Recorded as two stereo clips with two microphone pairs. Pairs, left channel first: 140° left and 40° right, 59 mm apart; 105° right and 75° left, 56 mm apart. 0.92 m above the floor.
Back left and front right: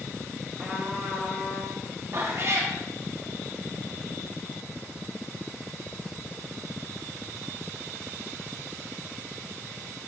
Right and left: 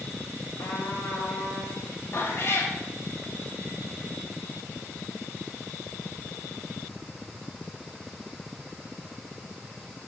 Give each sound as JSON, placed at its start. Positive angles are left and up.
{"t": 0.6, "sound": "a trumpet", "azimuth_deg": -125, "distance_m": 1.5}
{"t": 2.1, "sound": "a cat meowing", "azimuth_deg": -70, "distance_m": 0.6}